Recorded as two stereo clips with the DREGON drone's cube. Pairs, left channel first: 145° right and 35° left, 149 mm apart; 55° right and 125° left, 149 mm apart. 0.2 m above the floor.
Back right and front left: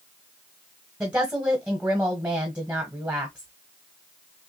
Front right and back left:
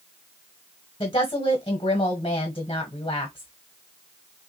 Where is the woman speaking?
45° right, 1.4 m.